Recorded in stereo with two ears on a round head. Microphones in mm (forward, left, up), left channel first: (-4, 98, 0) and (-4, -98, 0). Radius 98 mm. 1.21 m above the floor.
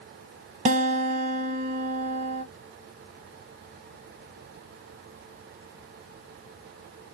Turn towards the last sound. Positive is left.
turn(degrees=-30)  # may be behind; listen again after turning